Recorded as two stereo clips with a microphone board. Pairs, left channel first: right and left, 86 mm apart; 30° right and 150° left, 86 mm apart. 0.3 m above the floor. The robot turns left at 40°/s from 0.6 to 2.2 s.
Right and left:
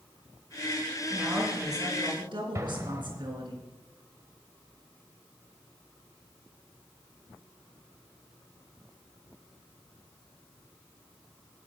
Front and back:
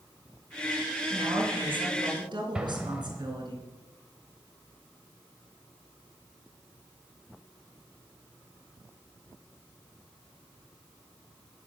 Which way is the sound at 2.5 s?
80° left.